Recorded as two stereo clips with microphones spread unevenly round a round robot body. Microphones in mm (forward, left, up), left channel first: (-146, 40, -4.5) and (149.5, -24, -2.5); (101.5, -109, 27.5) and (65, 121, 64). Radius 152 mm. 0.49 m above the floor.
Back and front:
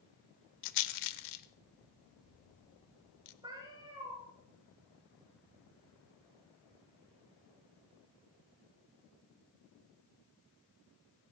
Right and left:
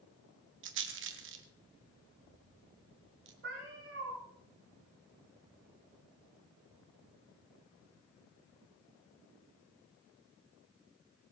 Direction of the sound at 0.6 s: 145° left.